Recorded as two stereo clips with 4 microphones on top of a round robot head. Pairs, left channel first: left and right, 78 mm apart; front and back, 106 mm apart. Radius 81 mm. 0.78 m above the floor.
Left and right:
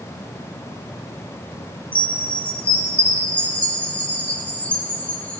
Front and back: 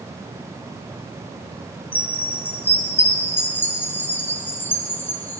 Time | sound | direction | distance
1.9 | a chime | 45° left | 0.9 m